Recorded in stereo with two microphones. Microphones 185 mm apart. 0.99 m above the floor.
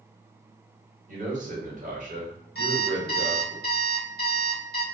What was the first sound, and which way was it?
A man speaking, 45° right (ahead or behind).